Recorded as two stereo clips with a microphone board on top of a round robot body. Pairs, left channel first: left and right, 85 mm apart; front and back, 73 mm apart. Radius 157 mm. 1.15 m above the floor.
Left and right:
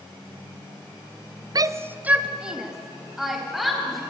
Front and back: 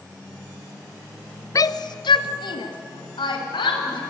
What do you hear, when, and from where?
1.6 s a shout: 45° right, 0.7 m; by 4.0 s straight ahead, 4.5 m